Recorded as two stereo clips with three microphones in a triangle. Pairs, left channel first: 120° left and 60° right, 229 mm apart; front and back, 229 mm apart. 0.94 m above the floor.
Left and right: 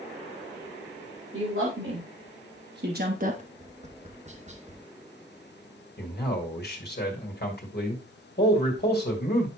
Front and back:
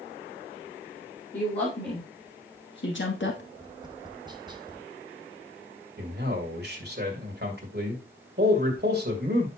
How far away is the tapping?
About 0.8 m.